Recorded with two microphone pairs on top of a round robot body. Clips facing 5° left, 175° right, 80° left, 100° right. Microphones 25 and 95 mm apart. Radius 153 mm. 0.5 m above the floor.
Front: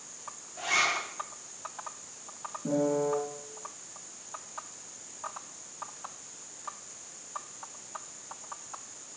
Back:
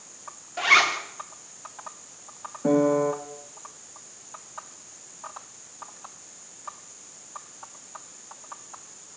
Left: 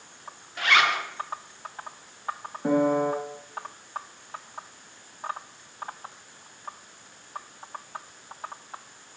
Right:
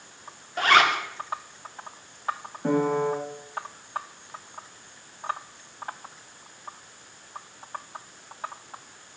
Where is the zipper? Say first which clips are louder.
Back 8 dB, right 3 dB; 140° right, 1.5 m.